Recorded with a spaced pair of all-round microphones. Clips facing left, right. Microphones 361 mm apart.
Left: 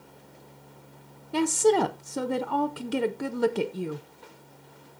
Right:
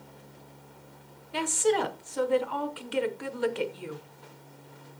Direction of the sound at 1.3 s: 55° left (ahead or behind).